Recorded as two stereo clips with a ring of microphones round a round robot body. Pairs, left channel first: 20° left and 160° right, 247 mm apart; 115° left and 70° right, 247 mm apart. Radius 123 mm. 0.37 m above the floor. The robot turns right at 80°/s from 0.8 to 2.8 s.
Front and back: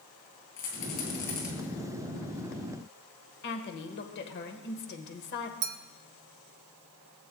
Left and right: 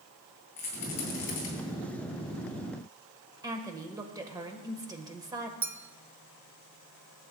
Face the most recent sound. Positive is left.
turn(degrees=-145)